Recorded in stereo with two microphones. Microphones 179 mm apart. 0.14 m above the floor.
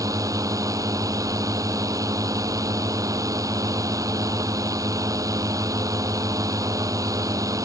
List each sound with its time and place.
0.0 s a drone: 20° right (ahead or behind)